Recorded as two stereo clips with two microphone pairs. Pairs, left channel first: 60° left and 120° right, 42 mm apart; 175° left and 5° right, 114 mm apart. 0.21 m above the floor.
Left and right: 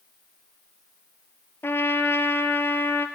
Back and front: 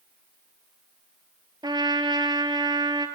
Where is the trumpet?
45° left, 0.8 m.